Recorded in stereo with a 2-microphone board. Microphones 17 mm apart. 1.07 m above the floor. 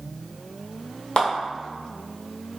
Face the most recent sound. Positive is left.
turn(degrees=70)  # may be behind; listen again after turning